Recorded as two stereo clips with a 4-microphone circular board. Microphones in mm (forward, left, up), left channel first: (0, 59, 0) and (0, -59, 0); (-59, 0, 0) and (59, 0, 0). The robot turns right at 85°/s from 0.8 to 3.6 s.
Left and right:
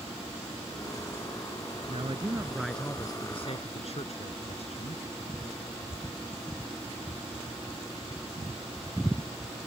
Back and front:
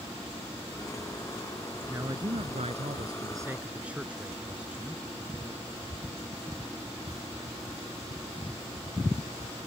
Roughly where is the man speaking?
Right.